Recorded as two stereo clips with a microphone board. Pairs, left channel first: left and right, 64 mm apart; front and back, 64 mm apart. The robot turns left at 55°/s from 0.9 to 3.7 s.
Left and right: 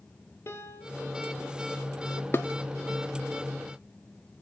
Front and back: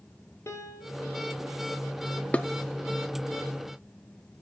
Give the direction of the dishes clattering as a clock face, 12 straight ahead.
10 o'clock.